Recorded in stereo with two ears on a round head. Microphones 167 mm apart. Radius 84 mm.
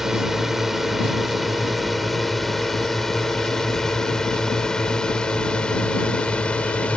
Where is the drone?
Centre (ahead or behind); by 7.0 s 5° left (ahead or behind).